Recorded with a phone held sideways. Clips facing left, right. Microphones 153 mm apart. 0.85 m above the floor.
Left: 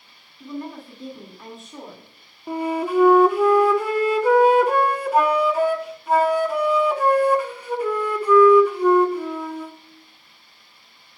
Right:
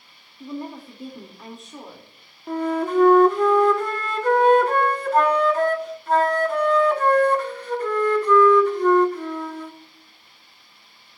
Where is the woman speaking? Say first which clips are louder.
Even; 20° right (ahead or behind), 2.5 m; by 2.1 s 5° left (ahead or behind), 2.5 m.